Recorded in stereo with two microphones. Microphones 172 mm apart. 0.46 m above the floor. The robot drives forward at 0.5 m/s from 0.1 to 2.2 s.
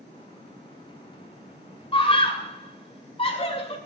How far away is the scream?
About 2 m.